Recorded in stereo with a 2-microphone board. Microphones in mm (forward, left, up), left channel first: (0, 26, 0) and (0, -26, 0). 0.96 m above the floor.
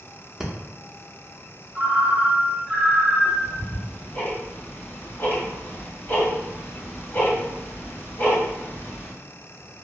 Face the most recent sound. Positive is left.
turn(degrees=45)  # may be behind; listen again after turning